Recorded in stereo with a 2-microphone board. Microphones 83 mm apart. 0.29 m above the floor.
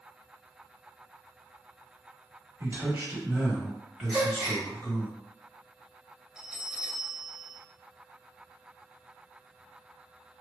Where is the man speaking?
40° right (ahead or behind), 1.3 m; by 5.1 s 20° left (ahead or behind), 1.5 m.